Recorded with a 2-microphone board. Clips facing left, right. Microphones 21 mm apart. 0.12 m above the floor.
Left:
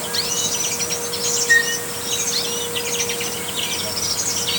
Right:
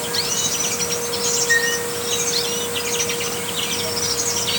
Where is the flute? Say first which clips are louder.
Left 3 dB; 5° left (ahead or behind), 1.8 m.